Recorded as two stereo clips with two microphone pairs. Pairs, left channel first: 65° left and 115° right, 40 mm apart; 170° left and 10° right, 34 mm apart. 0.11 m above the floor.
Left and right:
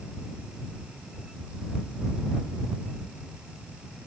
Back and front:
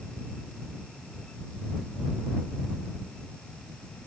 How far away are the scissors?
I don't hear scissors.